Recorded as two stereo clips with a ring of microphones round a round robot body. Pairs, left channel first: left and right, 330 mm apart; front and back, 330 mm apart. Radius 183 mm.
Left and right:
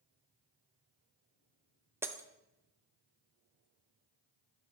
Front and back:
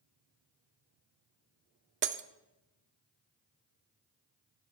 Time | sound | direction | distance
2.0 | breaking glass | 165° right | 0.5 m